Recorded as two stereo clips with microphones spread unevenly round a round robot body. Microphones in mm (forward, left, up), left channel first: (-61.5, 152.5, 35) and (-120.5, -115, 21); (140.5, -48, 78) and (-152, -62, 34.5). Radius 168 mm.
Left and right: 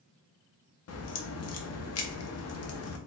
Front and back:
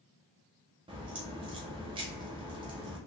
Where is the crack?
110° left, 0.7 m.